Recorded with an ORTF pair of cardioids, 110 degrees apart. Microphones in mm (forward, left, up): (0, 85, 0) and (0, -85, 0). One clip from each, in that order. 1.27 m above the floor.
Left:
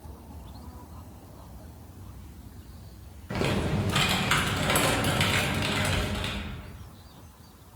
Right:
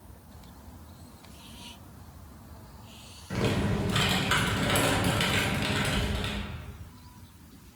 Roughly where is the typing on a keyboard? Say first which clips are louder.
Left 1 dB; ahead.